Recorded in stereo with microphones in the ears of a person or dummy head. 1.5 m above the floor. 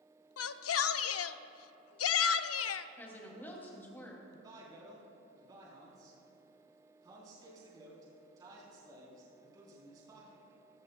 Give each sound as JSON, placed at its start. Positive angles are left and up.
{"t": 0.4, "sound": "a shout", "side_deg": 80, "distance_m": 0.5}
{"t": 3.0, "sound": "a woman speaking", "side_deg": 10, "distance_m": 2.5}
{"t": 4.3, "sound": "a man speaking", "side_deg": -25, "distance_m": 3.5}